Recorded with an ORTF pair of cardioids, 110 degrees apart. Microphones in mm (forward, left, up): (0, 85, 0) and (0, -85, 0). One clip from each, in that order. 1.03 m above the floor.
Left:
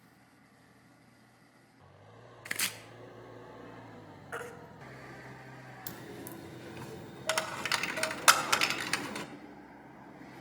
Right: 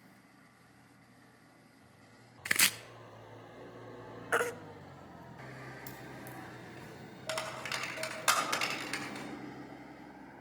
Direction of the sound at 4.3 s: 45° right.